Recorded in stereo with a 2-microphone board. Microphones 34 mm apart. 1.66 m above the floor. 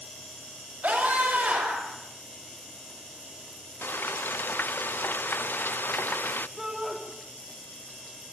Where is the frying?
80° left, 0.6 m.